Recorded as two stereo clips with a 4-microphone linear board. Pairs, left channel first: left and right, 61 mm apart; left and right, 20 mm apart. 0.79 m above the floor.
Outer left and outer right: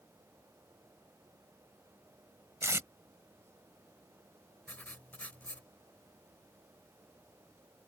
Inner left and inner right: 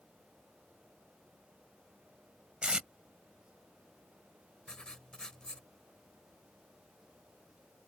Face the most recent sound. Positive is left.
turn(degrees=30)  # may be behind; listen again after turning